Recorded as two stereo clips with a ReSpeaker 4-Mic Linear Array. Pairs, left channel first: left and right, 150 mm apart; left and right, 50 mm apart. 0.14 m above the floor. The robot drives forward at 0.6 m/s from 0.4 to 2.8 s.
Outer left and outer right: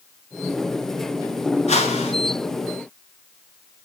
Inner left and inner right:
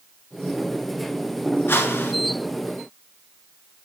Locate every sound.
1.7 s a whoosh: 50° left (ahead or behind), 1.0 m; by 2.1 s 45° left (ahead or behind), 1.1 m